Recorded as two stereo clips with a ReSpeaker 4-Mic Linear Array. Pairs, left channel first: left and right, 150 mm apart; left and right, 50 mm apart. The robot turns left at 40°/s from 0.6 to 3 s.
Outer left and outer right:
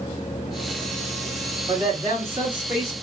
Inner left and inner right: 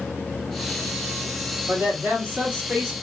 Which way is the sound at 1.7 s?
120° right.